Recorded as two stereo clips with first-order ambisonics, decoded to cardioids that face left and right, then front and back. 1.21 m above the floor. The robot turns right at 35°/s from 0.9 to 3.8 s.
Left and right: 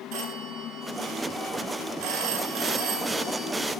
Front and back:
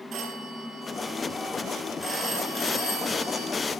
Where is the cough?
I don't hear a cough.